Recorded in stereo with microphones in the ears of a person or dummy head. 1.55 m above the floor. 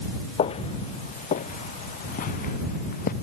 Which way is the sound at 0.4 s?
35° left (ahead or behind).